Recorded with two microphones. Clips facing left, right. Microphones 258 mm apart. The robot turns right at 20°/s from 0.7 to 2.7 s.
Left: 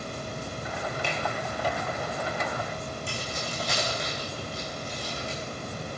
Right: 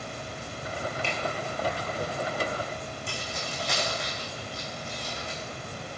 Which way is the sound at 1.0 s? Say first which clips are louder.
Left 1 dB; 15° left (ahead or behind).